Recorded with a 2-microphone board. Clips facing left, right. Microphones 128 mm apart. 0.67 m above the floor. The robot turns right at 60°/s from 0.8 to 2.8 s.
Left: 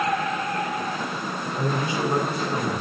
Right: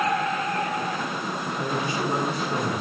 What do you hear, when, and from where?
1.6 s a man speaking: 135° left, 3.5 m; by 2.8 s 150° right, 3.5 m